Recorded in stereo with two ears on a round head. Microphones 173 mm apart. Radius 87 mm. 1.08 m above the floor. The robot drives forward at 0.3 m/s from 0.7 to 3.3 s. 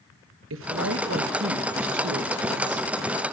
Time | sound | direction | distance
0.5 | a woman speaking | 75° right (ahead or behind) | 1.0 m